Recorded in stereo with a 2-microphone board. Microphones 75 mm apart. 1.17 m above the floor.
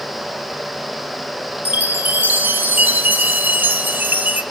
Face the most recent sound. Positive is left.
turn(degrees=-25)  # may be behind; listen again after turning